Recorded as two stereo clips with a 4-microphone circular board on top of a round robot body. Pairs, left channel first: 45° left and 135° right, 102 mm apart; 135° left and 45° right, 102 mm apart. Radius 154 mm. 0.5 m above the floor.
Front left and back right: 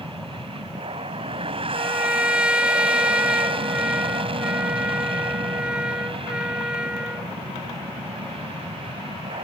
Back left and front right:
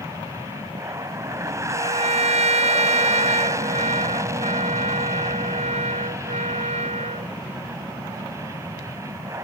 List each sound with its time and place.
0.0 s an aircraft: 105° right
1.7 s a trumpet: 55° right